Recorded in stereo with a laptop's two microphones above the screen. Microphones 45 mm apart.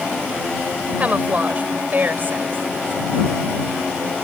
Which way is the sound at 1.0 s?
35° right (ahead or behind).